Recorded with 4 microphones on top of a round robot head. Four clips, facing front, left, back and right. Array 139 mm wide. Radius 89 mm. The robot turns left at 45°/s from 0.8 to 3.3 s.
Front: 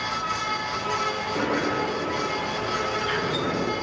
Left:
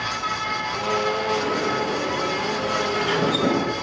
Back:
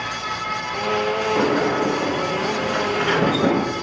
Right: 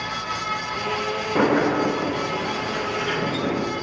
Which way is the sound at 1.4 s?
110° right.